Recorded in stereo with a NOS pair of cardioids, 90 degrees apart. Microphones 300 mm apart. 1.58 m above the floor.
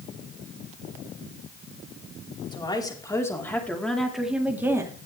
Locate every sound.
2.5 s a woman speaking: 15° left, 4.5 m; by 5.0 s 10° right, 3.5 m